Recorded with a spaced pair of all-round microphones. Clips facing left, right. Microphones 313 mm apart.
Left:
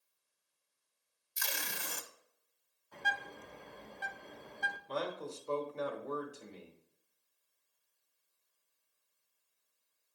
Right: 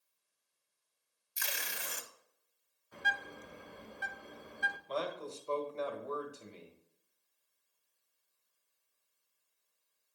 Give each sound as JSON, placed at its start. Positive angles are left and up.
{"t": 1.4, "sound": "tape being pulled", "side_deg": 50, "distance_m": 0.7}
{"t": 2.9, "sound": "a bird", "side_deg": -10, "distance_m": 0.7}
{"t": 4.9, "sound": "a man speaking", "side_deg": 20, "distance_m": 1.6}